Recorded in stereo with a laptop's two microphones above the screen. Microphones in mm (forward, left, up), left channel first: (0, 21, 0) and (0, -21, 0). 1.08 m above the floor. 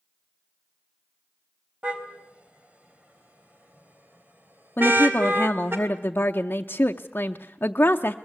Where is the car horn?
25° right (ahead or behind), 4 m; by 5.8 s 60° right (ahead or behind), 3 m.